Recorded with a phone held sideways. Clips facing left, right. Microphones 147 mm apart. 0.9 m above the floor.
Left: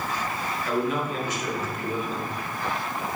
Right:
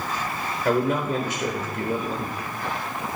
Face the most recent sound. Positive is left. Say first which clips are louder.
# right 5 dB
turn(degrees=-65)  # may be behind; listen again after turning